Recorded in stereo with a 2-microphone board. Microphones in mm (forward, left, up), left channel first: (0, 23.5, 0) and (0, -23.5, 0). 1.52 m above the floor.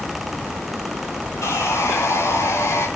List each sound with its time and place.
1.4 s sawing: 85° left, 4.5 m